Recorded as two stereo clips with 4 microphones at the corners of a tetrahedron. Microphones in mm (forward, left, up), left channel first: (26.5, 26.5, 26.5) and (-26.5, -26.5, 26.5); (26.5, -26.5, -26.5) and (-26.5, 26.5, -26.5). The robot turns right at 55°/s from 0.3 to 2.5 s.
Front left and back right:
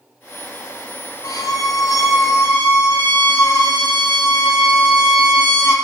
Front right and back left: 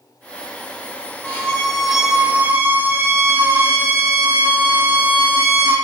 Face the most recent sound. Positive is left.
turn(degrees=90)